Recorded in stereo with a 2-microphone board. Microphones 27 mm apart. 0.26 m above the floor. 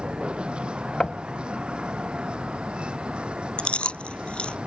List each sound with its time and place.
0.0 s a vehicle: 40° right (ahead or behind); by 4.7 s 45° right (ahead or behind)
1.0 s knocking: 25° left (ahead or behind)
3.6 s chewing: 45° left (ahead or behind)